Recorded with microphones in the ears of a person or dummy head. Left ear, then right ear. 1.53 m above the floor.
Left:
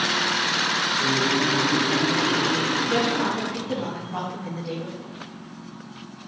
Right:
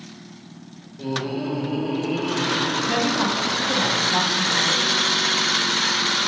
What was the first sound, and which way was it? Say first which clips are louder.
Laughter: left 7 dB; 45° right (ahead or behind).